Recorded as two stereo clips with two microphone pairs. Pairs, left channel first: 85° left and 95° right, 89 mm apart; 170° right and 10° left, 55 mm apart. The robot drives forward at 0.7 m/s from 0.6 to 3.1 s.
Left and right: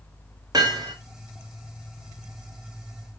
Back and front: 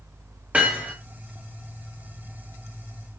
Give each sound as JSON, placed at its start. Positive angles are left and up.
{"t": 0.5, "sound": "hammering", "azimuth_deg": -55, "distance_m": 4.0}